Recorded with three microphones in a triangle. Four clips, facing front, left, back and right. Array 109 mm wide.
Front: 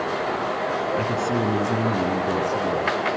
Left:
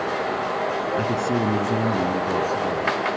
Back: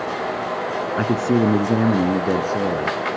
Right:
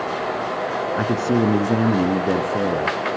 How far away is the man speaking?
About 2.5 m.